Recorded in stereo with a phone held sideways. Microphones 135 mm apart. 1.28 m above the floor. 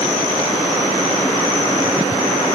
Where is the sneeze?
I don't hear a sneeze.